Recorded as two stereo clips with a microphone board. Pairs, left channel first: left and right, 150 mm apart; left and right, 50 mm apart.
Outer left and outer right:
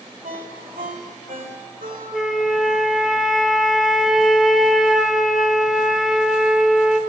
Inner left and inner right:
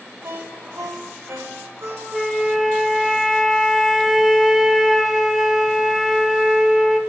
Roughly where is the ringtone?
Right.